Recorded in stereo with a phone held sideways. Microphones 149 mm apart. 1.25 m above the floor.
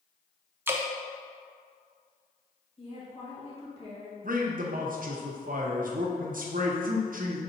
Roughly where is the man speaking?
Right.